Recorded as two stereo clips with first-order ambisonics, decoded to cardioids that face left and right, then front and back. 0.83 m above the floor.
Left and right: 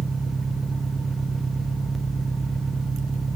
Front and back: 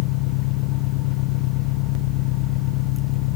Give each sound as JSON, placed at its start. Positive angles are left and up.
{"t": 0.0, "sound": "an engine running", "azimuth_deg": -10}